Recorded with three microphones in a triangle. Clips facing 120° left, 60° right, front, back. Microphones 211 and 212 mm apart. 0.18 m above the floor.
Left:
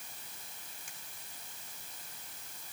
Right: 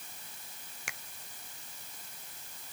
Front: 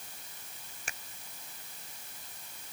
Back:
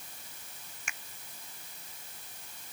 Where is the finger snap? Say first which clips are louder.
Right 8 dB, front 2 dB; 55° right.